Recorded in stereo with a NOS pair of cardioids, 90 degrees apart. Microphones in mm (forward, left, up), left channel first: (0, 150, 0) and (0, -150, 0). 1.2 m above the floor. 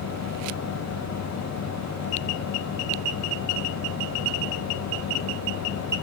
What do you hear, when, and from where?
0.0 s a fan: 65° left